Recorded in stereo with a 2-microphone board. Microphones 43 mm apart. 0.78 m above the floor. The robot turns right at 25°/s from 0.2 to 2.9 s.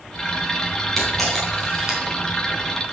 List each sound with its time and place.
1.0 s a camera shutter: 5° left (ahead or behind), 4 m; by 2.9 s 40° right (ahead or behind), 4 m